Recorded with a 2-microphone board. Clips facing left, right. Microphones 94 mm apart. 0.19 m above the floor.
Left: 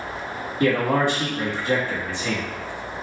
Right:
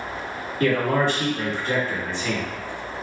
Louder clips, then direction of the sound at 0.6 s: Left 1 dB; 15° left (ahead or behind).